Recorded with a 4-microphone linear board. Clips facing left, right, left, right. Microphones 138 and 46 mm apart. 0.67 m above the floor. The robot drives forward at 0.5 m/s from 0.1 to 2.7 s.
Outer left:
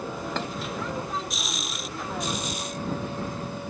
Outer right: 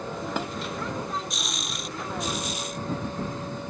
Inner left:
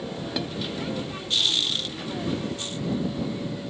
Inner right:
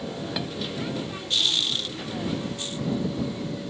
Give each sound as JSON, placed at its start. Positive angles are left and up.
{"t": 0.4, "sound": "dishes clattering", "side_deg": -10}